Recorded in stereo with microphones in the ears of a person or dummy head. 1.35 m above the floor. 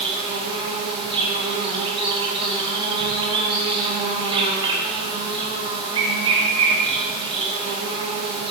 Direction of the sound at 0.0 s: 30° right (ahead or behind).